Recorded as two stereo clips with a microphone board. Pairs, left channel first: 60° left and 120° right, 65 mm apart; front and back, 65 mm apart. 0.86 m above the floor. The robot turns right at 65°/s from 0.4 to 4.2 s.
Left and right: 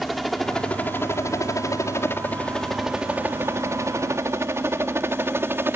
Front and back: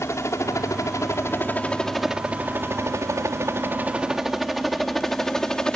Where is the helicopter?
30° right; by 5.8 s 75° right.